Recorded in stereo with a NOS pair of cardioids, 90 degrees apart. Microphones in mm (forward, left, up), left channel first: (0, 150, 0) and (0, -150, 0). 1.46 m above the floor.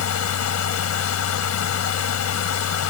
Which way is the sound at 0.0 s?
60° left.